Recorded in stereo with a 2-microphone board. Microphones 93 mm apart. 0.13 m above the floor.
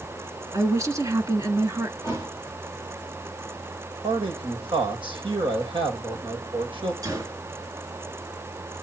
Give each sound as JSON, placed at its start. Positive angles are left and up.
{"t": 0.5, "sound": "a woman speaking", "side_deg": -35, "distance_m": 1.7}
{"t": 2.0, "sound": "a thud", "side_deg": -35, "distance_m": 6.0}
{"t": 4.0, "sound": "a man speaking", "side_deg": -70, "distance_m": 5.5}
{"t": 7.0, "sound": "a gunshot", "side_deg": -40, "distance_m": 1.8}